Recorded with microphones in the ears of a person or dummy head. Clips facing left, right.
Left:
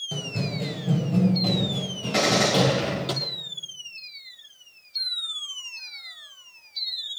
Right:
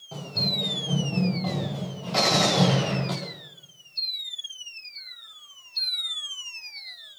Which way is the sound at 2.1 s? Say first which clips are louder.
Left 2 dB; 20° left (ahead or behind).